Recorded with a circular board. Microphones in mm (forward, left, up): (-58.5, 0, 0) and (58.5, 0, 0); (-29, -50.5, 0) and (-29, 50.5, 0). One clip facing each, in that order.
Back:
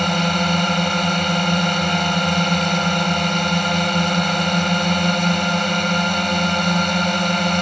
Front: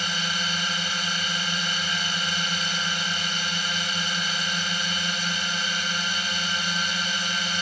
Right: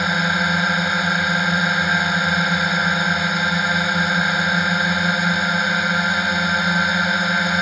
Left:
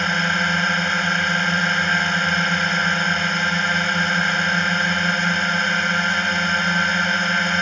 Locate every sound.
0.0 s a drone: 170° right